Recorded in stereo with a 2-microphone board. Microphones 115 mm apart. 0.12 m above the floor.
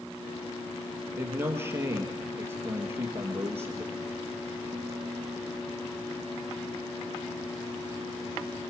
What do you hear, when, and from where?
1.2 s a man speaking: 20° right (ahead or behind), 2.5 m